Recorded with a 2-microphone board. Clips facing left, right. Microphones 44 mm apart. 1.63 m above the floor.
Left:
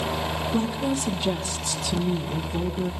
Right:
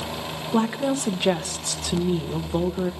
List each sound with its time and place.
0.5 s a woman speaking: 60° right (ahead or behind), 1.9 m